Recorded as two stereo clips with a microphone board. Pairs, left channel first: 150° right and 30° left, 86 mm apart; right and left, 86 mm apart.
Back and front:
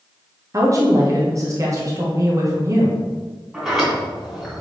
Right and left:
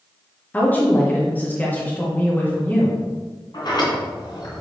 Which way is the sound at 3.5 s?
60° right.